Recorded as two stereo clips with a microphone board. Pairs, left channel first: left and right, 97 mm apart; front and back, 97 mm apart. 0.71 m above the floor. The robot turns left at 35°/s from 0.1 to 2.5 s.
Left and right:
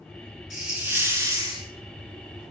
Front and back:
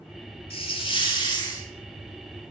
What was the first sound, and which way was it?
A hiss, 5° right.